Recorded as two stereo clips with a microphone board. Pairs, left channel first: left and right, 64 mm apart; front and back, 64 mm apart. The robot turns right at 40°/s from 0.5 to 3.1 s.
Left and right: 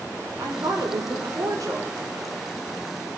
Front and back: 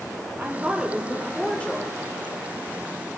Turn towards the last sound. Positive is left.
turn(degrees=-10)